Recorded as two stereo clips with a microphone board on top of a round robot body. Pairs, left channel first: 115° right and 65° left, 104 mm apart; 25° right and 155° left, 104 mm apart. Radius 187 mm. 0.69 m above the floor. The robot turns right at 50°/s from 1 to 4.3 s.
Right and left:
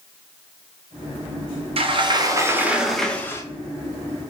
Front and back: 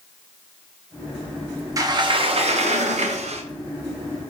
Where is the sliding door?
100° left, 0.5 m; by 3.4 s straight behind, 0.5 m.